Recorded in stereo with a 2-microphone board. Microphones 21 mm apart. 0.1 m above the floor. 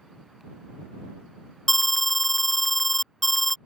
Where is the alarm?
5° left (ahead or behind).